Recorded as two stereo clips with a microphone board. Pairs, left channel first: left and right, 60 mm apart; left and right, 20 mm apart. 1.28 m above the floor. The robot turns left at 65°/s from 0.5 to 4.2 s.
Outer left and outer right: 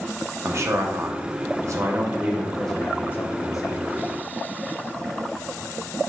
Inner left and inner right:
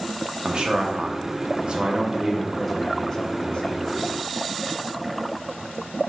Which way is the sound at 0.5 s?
45° right.